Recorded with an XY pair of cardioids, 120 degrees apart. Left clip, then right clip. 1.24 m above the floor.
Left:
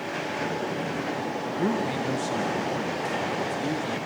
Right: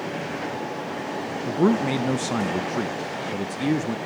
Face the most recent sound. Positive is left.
turn(degrees=-45)